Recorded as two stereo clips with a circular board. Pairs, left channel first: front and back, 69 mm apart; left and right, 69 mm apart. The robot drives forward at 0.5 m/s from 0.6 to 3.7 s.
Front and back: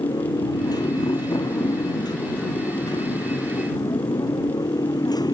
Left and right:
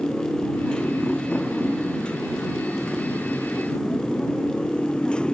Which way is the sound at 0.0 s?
10° left.